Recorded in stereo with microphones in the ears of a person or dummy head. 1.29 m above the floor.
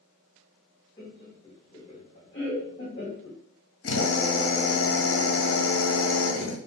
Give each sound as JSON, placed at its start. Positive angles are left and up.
{"t": 1.0, "sound": "laughter", "side_deg": 30, "distance_m": 0.9}
{"t": 3.8, "sound": "a drill", "side_deg": 65, "distance_m": 1.0}